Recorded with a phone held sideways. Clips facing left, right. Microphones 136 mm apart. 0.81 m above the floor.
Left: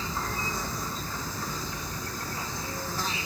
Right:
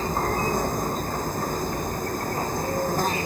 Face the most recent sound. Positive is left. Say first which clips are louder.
# right 9 dB
turn(degrees=-50)  # may be behind; listen again after turning